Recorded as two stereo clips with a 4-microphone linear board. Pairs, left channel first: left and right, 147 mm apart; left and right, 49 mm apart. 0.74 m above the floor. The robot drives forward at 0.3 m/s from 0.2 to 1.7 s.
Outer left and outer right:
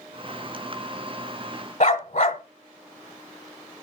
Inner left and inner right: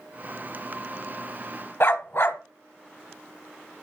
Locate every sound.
1.8 s a dog barking: 55° left (ahead or behind), 1.0 m